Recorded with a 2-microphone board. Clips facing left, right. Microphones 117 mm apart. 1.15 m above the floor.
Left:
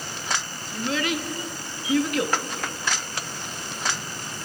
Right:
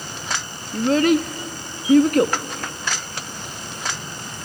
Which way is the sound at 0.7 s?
40° right (ahead or behind).